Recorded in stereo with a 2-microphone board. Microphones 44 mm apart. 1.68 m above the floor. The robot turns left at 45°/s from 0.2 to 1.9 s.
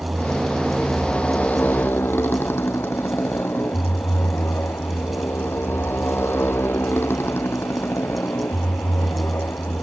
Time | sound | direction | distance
0.0 | a motorcycle | 25° right (ahead or behind) | ?